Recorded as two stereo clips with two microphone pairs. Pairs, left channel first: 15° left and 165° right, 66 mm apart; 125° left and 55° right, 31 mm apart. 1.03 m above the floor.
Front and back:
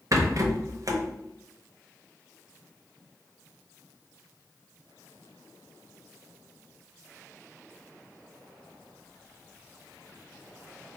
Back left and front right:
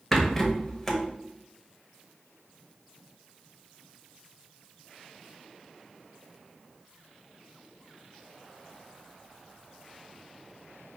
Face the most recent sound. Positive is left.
turn(degrees=-155)